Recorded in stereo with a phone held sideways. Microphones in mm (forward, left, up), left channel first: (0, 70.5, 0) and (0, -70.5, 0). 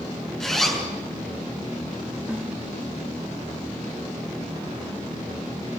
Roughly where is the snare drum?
Centre.